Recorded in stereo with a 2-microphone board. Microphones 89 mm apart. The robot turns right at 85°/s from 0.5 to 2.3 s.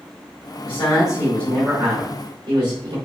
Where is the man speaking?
95° left, 2.5 m; by 3.0 s 125° right, 2.5 m.